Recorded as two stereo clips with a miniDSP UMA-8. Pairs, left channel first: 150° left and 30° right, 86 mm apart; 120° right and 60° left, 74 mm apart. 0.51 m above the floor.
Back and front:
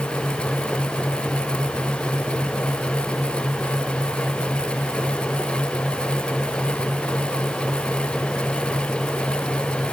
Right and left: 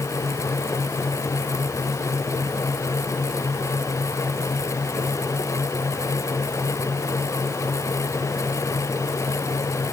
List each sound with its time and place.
Only background noise.